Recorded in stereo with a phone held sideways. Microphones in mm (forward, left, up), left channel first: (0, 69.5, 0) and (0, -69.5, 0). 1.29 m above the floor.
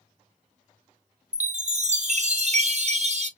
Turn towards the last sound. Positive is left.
turn(degrees=-50)  # may be behind; listen again after turning